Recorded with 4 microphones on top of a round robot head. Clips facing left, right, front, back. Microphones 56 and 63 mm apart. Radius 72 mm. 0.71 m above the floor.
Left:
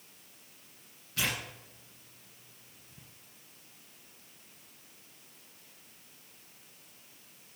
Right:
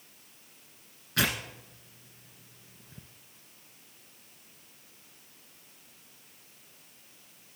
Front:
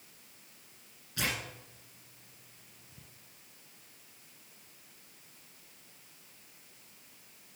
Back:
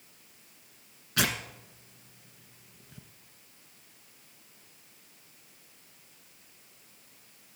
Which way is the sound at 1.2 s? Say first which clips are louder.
Right 5 dB, back 5 dB; 140° right.